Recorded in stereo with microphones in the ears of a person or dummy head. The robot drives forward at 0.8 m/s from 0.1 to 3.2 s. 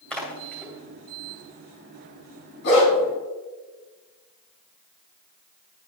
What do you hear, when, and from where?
0.1 s a splash: 5° left (ahead or behind), 2.5 m
2.6 s a dog barking: 60° left (ahead or behind), 3.5 m; by 2.9 s 55° left (ahead or behind), 3.5 m